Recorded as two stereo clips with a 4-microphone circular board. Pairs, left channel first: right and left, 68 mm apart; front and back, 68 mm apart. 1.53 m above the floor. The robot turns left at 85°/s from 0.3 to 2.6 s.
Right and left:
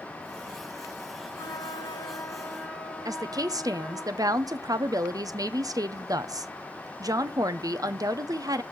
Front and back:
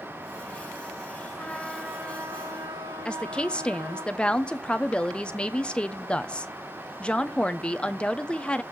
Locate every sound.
1.4 s a flute: 60° right, 1.1 m; by 4.0 s 165° right, 1.1 m
3.0 s a woman speaking: 75° left, 0.6 m